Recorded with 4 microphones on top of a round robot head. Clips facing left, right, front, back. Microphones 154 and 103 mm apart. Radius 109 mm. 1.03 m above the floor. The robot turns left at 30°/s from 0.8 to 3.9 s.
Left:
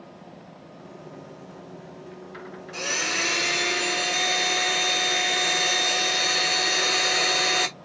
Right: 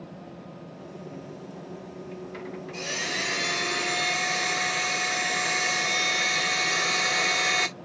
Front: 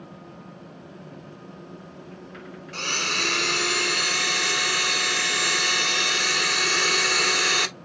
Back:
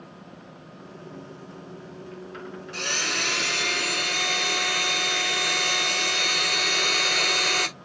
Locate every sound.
2.7 s a blender: 45° left, 1.1 m; by 7.7 s 10° left, 1.1 m